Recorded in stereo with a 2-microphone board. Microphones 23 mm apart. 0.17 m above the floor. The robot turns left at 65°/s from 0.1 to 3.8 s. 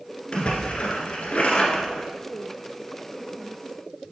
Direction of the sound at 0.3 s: 140° left.